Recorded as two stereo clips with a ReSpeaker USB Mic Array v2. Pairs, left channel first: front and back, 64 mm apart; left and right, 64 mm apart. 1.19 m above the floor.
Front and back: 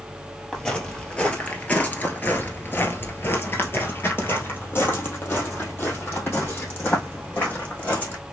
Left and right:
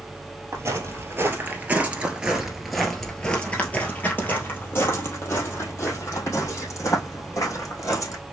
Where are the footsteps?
75° right, 1.6 m; by 8.2 s 60° left, 3.5 m.